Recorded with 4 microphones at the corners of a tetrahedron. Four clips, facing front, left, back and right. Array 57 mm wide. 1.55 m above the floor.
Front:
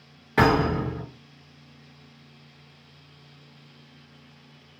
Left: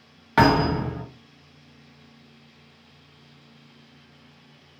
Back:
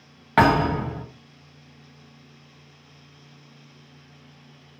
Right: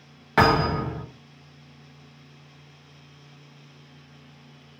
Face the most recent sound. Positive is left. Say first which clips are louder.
# left 1 dB, back 2 dB
turn(degrees=-175)